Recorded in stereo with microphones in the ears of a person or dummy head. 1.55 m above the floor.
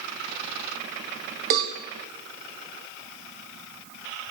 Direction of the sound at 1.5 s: 45° right (ahead or behind).